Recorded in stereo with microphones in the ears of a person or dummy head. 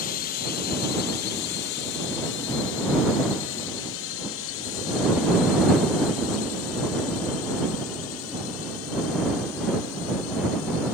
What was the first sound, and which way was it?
A drone, 45° left (ahead or behind).